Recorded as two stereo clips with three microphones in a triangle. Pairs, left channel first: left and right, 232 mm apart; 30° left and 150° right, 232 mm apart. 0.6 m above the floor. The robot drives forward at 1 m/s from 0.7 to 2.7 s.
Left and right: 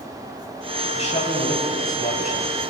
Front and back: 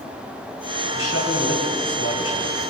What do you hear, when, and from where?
0.9 s a man speaking: 30° left, 4 m; by 2.7 s 50° left, 2.5 m